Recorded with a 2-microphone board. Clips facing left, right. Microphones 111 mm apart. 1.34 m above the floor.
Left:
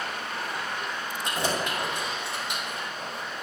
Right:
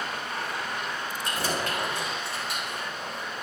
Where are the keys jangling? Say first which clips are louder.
Left 2 dB; 20° left (ahead or behind), 4 m.